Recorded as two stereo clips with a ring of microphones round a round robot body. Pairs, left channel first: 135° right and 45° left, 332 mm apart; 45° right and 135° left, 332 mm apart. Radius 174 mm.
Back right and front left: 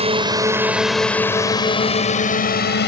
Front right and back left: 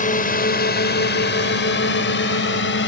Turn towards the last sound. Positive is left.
turn(degrees=-90)